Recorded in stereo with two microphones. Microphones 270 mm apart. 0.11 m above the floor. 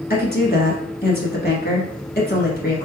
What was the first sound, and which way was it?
A woman speaking, 35° left (ahead or behind).